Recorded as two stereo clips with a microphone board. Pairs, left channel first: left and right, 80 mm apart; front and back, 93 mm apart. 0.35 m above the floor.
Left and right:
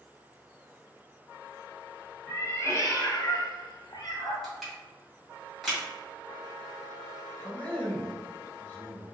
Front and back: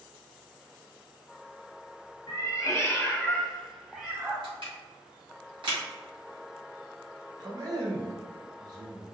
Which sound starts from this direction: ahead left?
A cat meowing, at 2.3 s.